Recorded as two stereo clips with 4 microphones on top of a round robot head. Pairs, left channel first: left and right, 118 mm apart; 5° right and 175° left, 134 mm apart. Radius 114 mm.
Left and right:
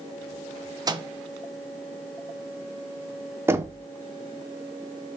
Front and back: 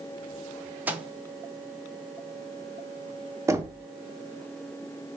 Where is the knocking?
140° right, 0.6 m.